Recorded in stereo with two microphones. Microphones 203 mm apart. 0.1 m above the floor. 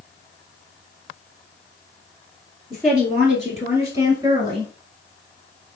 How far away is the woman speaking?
About 1.8 m.